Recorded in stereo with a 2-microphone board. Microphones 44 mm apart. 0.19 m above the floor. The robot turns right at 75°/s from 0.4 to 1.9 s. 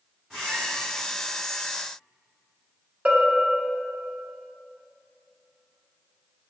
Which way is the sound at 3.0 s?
35° right (ahead or behind).